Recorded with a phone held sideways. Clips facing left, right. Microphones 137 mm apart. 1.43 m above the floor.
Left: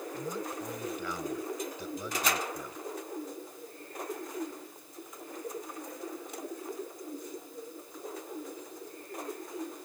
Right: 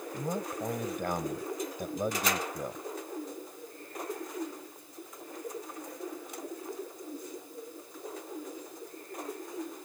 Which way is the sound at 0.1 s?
50° right (ahead or behind).